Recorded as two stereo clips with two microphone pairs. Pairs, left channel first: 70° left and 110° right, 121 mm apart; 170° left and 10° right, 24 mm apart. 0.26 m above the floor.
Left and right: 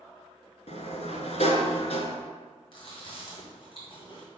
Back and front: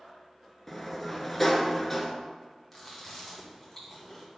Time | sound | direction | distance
0.7 | a sliding door | 90° left | 0.9 m
2.7 | chewing | 95° left | 2.5 m